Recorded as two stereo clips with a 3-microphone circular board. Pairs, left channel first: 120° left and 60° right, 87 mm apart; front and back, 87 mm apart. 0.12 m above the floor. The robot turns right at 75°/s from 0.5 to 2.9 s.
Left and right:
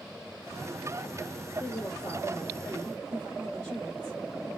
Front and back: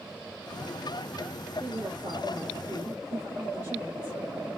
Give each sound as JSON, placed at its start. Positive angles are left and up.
{"t": 1.6, "sound": "a woman speaking", "azimuth_deg": 145, "distance_m": 2.0}